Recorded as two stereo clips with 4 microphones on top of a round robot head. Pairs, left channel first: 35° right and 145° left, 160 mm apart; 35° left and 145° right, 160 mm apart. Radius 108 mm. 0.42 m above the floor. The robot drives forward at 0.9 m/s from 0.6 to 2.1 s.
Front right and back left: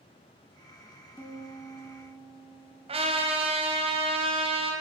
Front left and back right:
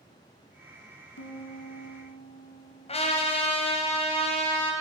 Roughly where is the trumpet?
Left.